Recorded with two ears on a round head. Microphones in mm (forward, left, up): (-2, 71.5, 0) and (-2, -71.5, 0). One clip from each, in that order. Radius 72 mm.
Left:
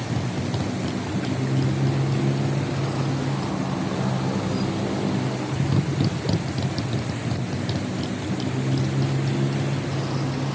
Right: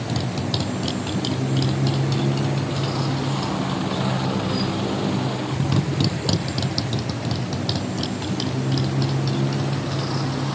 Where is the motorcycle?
70° right (ahead or behind); by 10.6 s 35° right (ahead or behind).